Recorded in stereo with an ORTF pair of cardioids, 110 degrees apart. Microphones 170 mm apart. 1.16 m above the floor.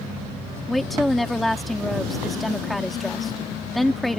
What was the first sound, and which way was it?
A woman speaking, straight ahead.